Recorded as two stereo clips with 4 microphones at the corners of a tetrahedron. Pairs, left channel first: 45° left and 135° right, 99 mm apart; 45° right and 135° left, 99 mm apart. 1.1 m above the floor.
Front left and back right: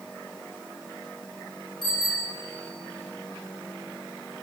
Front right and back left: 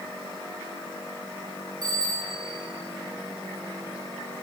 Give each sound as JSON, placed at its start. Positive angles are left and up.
{"t": 1.8, "sound": "a bicycle bell", "azimuth_deg": 85, "distance_m": 7.0}